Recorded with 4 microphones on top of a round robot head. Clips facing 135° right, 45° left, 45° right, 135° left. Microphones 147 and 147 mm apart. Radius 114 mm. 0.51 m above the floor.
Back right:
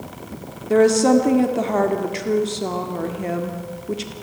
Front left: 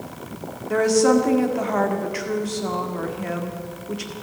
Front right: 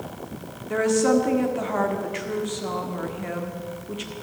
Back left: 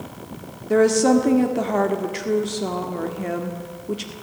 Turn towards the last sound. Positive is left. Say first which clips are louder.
# back right 3 dB, back left 4 dB
turn(degrees=170)